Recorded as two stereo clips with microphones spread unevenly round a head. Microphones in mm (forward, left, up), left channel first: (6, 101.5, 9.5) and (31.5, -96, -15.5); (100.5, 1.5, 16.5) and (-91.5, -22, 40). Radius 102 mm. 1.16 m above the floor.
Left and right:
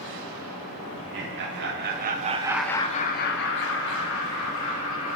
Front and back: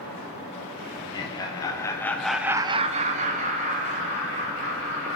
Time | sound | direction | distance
0.9 | laughter | 60° right | 1.6 m